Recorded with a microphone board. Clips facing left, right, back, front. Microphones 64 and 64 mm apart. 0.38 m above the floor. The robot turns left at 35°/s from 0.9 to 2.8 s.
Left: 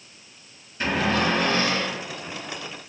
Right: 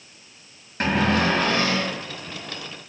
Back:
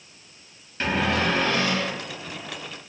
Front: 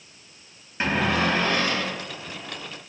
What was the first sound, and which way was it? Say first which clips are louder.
A cupboard door: right 2 dB, front 1 dB; 70° right.